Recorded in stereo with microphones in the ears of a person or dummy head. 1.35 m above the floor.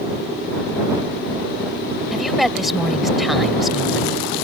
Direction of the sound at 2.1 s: Centre (ahead or behind).